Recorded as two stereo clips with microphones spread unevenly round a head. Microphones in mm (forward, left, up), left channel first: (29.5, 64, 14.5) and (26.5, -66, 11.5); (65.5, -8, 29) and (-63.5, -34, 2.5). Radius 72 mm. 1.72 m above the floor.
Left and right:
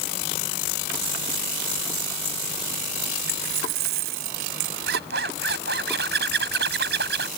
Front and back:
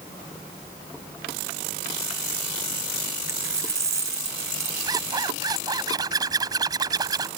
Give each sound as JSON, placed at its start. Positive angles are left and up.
{"t": 3.3, "sound": "a dropped coin", "azimuth_deg": -100}
{"t": 4.9, "sound": "a zipper", "azimuth_deg": -105}